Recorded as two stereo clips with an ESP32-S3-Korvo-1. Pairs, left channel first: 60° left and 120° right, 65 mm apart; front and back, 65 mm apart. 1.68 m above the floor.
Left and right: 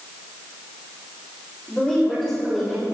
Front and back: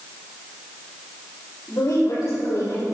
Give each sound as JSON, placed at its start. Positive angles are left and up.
{"t": 1.7, "sound": "a woman speaking", "azimuth_deg": -40, "distance_m": 3.5}